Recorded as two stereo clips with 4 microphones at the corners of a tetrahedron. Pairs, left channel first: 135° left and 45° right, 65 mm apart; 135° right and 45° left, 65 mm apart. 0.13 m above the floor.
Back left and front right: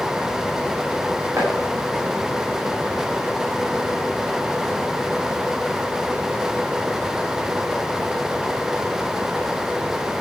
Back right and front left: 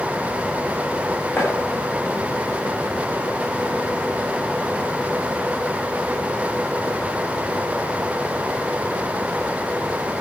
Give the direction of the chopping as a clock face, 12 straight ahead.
3 o'clock.